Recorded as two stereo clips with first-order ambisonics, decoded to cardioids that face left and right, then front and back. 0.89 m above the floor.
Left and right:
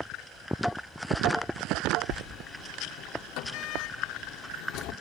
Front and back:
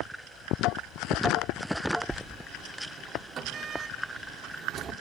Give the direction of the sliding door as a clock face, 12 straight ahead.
8 o'clock.